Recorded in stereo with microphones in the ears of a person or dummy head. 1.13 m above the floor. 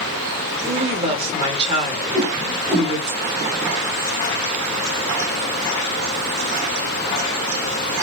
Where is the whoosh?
20° right (ahead or behind), 1.7 m.